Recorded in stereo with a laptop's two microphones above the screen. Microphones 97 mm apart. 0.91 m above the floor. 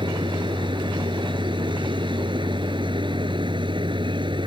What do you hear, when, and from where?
0.0 s a machine running: 60° right (ahead or behind)